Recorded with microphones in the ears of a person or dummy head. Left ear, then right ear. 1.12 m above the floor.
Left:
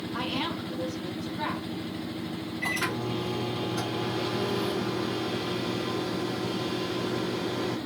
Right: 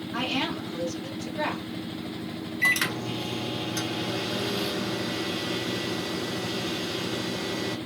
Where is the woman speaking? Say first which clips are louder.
Right 3 dB; 55° right (ahead or behind), 1.5 m.